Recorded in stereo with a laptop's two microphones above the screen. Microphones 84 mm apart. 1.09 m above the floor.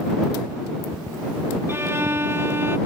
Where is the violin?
30° right (ahead or behind).